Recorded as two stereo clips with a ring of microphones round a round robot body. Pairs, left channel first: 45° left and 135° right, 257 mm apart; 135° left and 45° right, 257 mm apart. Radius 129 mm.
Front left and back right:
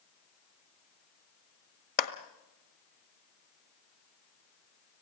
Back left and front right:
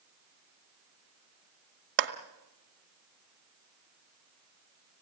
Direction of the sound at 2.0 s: 5° right.